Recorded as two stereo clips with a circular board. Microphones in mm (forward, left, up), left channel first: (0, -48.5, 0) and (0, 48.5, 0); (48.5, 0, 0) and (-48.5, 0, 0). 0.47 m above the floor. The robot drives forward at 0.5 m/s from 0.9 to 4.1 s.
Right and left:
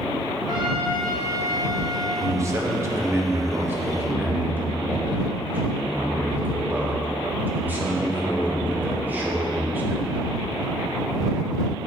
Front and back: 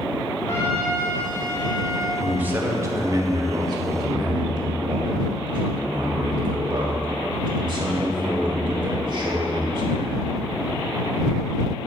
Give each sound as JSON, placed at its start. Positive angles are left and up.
{"t": 0.5, "sound": "a trumpet", "azimuth_deg": 60, "distance_m": 2.0}
{"t": 2.2, "sound": "a man speaking", "azimuth_deg": 110, "distance_m": 0.9}